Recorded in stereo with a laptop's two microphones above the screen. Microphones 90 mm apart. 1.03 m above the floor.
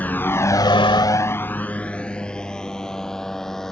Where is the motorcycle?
20° left (ahead or behind); by 3.7 s 5° left (ahead or behind).